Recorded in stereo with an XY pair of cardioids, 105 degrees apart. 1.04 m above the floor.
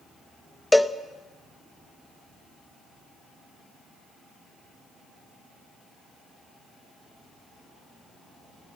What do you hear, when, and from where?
0.7 s a cowbell: 5° left, 0.7 m